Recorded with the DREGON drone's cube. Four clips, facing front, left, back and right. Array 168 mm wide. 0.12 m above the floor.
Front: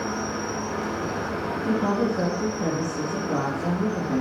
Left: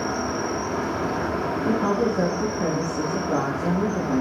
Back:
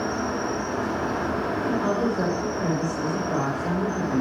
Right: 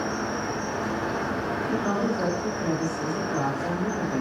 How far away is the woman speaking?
About 4.5 m.